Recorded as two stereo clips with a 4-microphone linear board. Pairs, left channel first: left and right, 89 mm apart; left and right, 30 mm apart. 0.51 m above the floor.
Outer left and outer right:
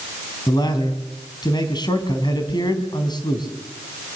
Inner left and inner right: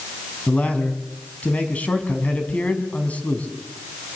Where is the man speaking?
55° left (ahead or behind), 4 m.